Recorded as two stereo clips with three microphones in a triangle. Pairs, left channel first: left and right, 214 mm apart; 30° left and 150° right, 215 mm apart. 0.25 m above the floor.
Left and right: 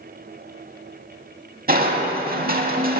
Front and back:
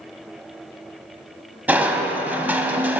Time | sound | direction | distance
1.7 | crushing | 70° right | 0.7 m